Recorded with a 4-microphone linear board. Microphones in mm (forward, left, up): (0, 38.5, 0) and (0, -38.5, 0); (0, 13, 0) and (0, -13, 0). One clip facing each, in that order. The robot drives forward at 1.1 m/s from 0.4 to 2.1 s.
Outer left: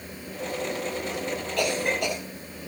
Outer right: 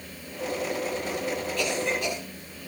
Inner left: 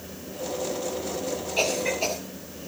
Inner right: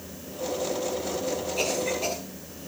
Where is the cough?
65° left (ahead or behind), 6.5 m; by 2.2 s 60° left (ahead or behind), 7 m.